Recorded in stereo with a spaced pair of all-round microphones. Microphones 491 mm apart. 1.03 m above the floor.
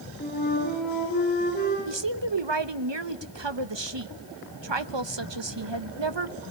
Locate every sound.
0.2 s a flute: 20° left (ahead or behind), 8.5 m
1.9 s a woman speaking: 65° right (ahead or behind), 1.0 m